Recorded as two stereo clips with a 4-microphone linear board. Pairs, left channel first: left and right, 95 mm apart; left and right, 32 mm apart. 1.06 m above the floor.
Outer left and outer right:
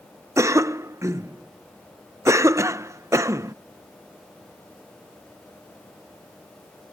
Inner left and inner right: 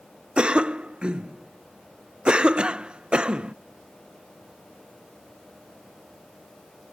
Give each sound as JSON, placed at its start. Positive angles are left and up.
{"t": 0.4, "sound": "a cough", "side_deg": -30}